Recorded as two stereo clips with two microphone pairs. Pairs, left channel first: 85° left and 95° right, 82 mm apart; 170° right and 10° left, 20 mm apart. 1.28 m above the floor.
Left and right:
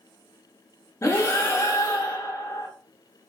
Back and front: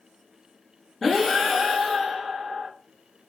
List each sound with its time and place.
1.0 s breathing: 110° left, 0.8 m